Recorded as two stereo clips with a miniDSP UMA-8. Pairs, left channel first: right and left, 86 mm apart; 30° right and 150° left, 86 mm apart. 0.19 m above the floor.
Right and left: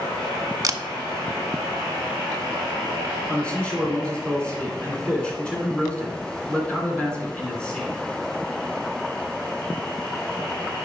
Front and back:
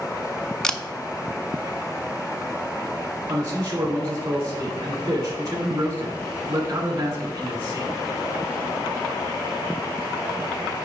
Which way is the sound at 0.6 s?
50° left.